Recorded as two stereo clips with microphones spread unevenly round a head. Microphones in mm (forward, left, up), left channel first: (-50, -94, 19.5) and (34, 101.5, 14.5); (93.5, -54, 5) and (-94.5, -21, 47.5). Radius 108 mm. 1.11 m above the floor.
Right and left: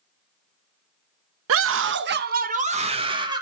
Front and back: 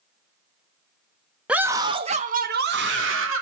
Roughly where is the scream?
Left.